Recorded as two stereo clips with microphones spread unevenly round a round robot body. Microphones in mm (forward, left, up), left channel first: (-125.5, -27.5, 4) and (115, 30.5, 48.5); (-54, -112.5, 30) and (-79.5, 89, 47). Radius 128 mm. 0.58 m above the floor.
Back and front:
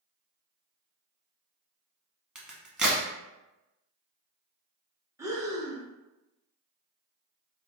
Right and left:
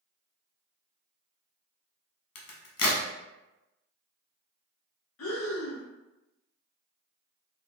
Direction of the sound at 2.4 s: 70° right.